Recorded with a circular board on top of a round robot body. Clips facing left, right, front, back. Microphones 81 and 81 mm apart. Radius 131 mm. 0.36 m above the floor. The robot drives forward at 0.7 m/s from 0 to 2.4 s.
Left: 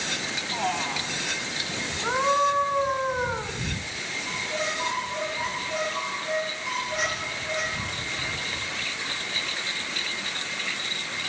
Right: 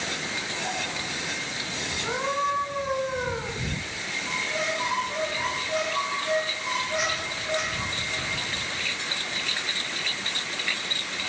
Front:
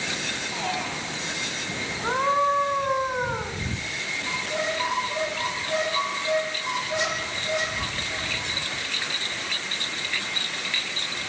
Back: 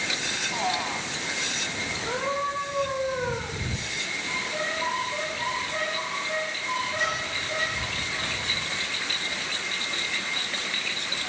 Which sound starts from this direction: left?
A man speaking, at 0.5 s.